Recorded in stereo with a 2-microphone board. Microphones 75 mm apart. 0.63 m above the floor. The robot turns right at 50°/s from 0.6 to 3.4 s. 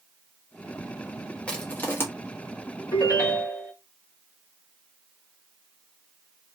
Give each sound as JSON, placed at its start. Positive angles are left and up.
{"t": 1.5, "sound": "crushing", "side_deg": 15, "distance_m": 0.8}
{"t": 2.9, "sound": "a ringtone", "side_deg": 50, "distance_m": 1.6}